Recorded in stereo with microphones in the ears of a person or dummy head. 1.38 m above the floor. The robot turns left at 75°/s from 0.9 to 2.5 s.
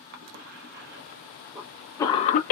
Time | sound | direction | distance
0.1 | a cough | 55° right (ahead or behind) | 0.7 m